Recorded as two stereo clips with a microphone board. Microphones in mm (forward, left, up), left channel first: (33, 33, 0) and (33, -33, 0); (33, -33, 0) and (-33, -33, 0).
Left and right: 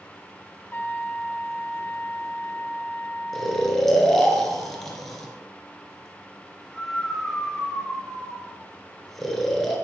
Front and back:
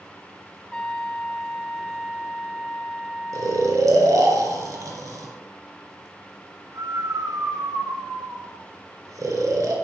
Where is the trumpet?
65° left, 0.6 m.